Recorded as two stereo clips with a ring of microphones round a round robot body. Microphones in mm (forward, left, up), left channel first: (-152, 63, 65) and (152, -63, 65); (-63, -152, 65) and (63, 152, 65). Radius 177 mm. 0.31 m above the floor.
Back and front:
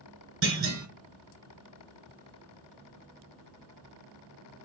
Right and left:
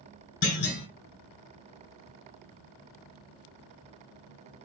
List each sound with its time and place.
0.4 s a clunk: 70° right, 1.3 m